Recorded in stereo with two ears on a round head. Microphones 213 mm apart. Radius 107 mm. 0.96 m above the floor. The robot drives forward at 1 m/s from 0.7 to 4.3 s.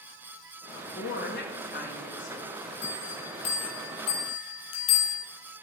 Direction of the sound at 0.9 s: 55° left (ahead or behind).